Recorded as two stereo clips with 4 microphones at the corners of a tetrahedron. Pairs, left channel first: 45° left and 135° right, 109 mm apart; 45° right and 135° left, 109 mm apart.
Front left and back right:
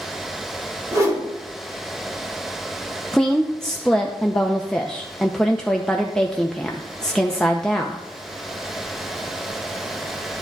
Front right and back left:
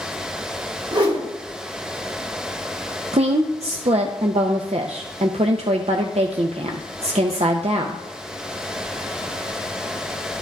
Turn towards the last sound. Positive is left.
turn(degrees=130)